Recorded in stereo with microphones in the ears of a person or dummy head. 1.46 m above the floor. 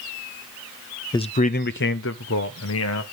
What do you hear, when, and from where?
1.1 s a man speaking: 15° left (ahead or behind), 0.5 m; by 3.0 s 80° left, 1.5 m